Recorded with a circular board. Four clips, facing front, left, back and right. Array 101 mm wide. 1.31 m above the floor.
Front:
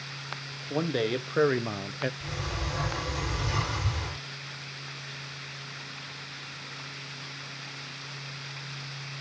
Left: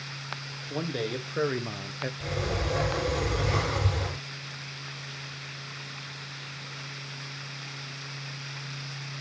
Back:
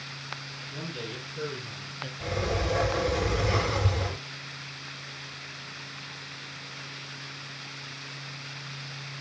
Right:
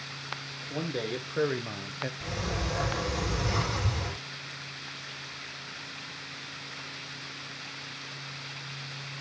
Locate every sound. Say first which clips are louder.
0.7 s a man speaking: left 1 dB, front 11 dB; straight ahead, 1.6 m; by 2.1 s 5° left, 0.6 m
2.2 s a sliding door: left 5 dB, back 6 dB; 150° left, 6.5 m